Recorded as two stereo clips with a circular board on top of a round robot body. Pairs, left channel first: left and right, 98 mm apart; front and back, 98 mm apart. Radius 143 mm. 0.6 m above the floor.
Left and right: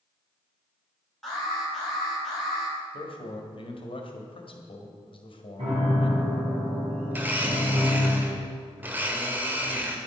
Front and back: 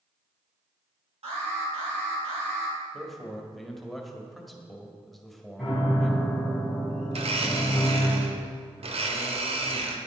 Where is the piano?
85° right, 4.5 m.